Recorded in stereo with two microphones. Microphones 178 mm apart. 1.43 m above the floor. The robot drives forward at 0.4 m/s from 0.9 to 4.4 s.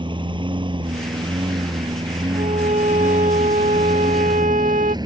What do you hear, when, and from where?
0.0 s a lawn mower: 30° right (ahead or behind); by 5.0 s 25° right (ahead or behind)
2.3 s a violin: 45° right (ahead or behind); by 5.0 s 50° right (ahead or behind)